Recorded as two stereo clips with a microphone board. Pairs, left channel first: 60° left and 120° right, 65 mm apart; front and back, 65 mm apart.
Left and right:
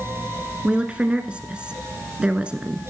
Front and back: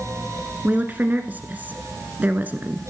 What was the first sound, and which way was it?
A woman speaking, 170° right.